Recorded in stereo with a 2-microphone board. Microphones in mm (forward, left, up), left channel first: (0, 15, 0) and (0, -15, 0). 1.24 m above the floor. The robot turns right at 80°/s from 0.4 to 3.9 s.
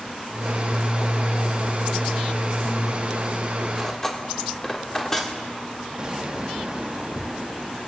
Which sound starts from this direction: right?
An explosion, at 6.0 s.